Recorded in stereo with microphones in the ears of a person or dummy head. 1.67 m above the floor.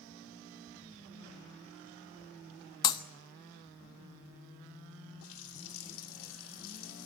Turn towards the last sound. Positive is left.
turn(degrees=80)